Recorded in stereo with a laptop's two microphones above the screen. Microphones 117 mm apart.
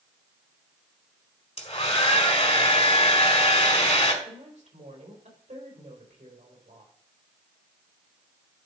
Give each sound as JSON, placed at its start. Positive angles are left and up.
{"t": 1.6, "sound": "a hair dryer", "side_deg": 60, "distance_m": 1.8}
{"t": 4.2, "sound": "a woman speaking", "side_deg": -85, "distance_m": 4.0}